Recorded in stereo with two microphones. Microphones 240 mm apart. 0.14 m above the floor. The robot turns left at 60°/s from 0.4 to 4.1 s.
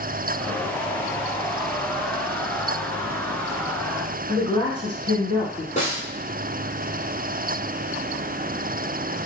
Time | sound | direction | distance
4.3 | a woman speaking | 25° left (ahead or behind) | 1.1 m
5.8 | a snare drum | 30° left (ahead or behind) | 0.9 m